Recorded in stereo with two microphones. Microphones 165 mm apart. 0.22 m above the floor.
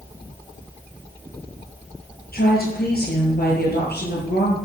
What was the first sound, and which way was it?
A woman speaking, 60° left (ahead or behind).